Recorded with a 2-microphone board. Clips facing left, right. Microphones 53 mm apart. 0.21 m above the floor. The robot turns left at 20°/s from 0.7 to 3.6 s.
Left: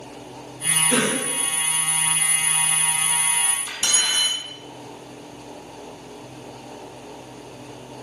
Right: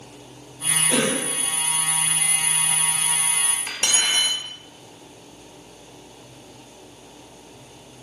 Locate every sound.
0.9 s a cough: 30° left (ahead or behind), 2.5 m; by 1.3 s 25° left (ahead or behind), 2.5 m
3.7 s cutlery clinking: 65° right (ahead or behind), 2 m